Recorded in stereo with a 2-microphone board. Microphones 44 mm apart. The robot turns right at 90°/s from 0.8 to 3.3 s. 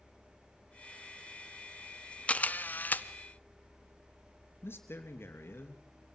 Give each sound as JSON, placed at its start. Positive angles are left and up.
{"t": 2.3, "sound": "a camera shutter", "azimuth_deg": 45, "distance_m": 0.7}
{"t": 4.6, "sound": "a man speaking", "side_deg": 60, "distance_m": 2.5}